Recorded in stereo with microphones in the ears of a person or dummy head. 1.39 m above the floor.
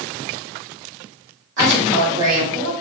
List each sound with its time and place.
1.6 s a woman speaking: 60° right (ahead or behind), 2.0 m; by 2.7 s 85° right, 1.7 m